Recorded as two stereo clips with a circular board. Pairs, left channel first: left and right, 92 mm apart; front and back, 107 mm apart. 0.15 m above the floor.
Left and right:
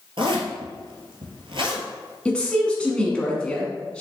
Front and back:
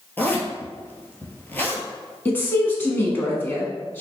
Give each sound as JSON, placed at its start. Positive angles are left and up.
{"t": 0.2, "sound": "a zipper", "azimuth_deg": -70, "distance_m": 1.0}
{"t": 2.2, "sound": "a woman speaking", "azimuth_deg": 30, "distance_m": 1.1}